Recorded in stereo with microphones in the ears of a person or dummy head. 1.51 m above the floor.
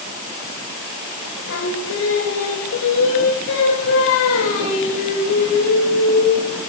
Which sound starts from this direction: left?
Singing, at 1.5 s.